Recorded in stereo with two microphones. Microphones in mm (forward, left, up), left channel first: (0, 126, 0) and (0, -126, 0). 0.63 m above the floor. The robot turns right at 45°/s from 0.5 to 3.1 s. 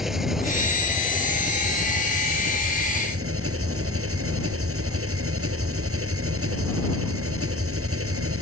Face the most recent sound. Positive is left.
turn(degrees=-60)